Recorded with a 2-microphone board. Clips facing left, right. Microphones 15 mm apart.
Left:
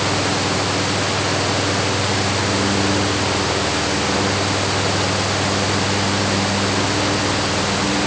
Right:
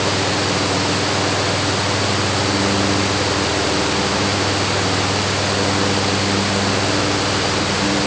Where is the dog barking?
I don't hear a dog barking.